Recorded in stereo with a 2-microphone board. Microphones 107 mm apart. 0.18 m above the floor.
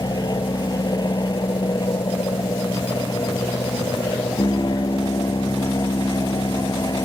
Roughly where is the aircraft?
Left.